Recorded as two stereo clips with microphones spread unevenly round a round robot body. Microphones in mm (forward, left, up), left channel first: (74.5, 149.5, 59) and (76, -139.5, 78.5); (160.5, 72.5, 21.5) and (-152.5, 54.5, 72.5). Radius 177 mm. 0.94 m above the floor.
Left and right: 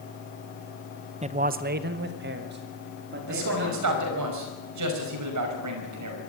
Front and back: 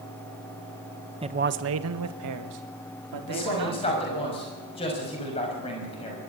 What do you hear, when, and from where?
1.2 s a man speaking: 110° right, 0.8 m; by 4.3 s 145° right, 4 m
3.3 s a man speaking: 70° right, 5.5 m